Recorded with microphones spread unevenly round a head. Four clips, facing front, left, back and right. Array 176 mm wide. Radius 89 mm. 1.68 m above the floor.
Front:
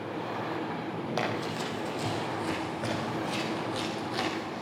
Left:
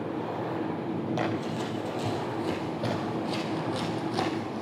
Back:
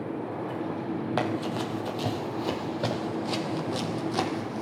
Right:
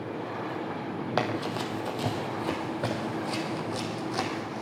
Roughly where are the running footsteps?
Behind right.